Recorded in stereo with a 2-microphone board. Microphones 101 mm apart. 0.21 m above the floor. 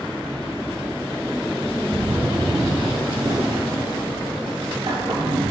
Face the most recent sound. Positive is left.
turn(degrees=-60)  # may be behind; listen again after turning